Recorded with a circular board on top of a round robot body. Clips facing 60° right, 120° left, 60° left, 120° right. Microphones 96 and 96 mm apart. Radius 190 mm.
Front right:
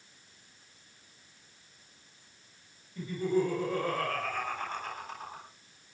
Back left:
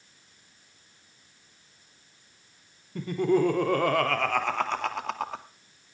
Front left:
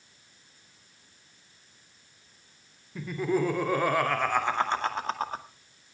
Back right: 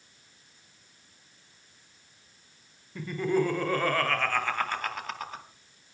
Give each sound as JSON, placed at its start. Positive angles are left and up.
{"t": 3.0, "sound": "laughter", "azimuth_deg": 150, "distance_m": 3.5}